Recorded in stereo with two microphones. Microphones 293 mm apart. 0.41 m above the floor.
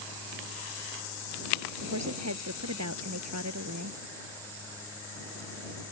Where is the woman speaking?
65° right (ahead or behind).